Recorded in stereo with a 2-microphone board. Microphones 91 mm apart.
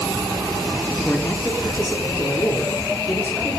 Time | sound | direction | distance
1.1 | a man speaking | 15° left (ahead or behind) | 0.8 m